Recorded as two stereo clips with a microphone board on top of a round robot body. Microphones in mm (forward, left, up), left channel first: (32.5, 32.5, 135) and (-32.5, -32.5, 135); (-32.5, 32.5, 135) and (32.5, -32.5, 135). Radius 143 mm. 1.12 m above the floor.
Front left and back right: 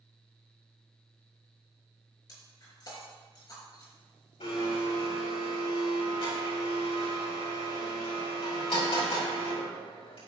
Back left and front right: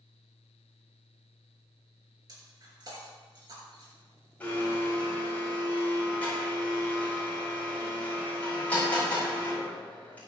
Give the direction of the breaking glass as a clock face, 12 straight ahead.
12 o'clock.